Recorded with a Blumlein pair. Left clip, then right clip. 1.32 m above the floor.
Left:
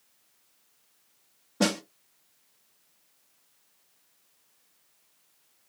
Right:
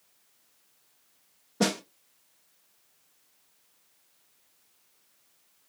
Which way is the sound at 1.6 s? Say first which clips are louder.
Left 1 dB; 5° left.